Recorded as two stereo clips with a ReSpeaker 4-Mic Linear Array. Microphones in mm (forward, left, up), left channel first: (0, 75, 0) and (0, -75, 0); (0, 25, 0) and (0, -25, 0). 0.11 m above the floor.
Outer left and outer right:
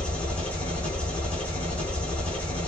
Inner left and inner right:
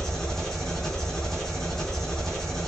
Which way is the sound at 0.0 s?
10° left (ahead or behind).